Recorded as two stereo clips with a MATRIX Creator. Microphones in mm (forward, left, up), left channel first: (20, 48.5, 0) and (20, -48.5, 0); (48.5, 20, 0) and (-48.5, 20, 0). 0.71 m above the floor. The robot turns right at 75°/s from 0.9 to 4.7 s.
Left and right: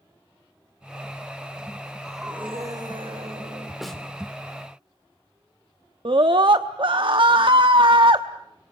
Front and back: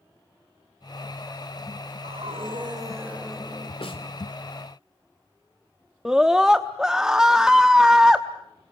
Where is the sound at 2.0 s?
170° left, 3 m; by 3.7 s 65° right, 3 m.